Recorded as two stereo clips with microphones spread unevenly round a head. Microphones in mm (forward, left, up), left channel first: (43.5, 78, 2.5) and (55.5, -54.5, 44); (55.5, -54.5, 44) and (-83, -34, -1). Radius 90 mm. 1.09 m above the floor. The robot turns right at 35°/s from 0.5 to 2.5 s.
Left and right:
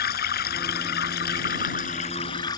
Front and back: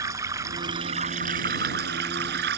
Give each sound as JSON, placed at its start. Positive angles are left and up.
{"t": 0.0, "sound": "running water", "azimuth_deg": 95}